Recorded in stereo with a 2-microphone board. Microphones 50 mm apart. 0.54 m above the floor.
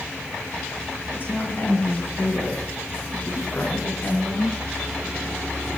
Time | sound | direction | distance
1.1 | a woman speaking | 55° left (ahead or behind) | 6.5 m